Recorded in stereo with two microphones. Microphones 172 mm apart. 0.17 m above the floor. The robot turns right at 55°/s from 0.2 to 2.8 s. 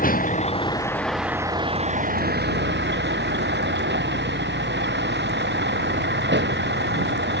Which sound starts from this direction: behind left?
A vehicle, at 0.0 s.